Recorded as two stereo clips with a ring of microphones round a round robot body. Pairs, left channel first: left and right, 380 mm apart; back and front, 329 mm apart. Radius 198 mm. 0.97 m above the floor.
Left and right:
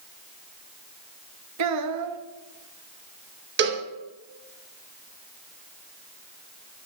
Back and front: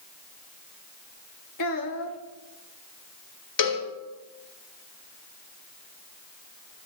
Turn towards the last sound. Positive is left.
turn(degrees=-150)